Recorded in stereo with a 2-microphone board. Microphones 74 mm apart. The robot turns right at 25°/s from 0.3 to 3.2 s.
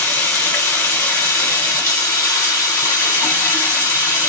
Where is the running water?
55° left, 1.8 m; by 4.3 s 130° left, 1.8 m.